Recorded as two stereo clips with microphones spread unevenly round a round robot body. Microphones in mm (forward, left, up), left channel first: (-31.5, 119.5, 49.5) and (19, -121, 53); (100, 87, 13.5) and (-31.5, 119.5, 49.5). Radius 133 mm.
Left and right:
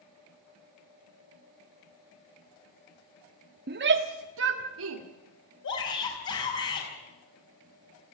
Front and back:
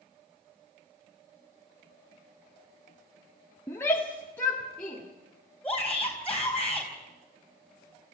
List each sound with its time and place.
3.7 s a shout: 60° right, 1.4 m; by 5.0 s 90° right, 2.5 m
5.6 s a shout: 65° left, 5 m